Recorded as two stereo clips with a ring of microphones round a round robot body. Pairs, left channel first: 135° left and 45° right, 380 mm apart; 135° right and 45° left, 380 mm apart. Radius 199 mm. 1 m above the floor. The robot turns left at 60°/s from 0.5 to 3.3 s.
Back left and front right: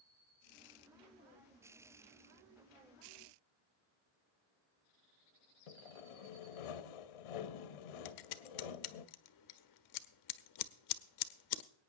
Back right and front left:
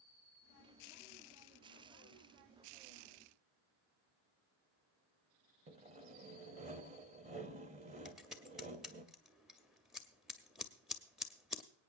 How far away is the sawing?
About 0.8 m.